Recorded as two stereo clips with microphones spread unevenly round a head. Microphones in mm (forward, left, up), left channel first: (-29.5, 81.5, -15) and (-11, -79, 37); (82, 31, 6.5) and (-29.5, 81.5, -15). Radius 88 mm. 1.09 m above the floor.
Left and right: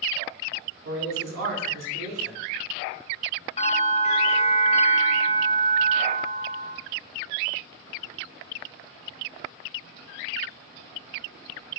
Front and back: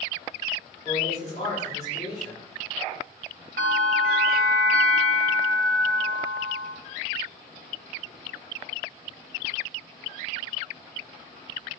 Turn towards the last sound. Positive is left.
turn(degrees=155)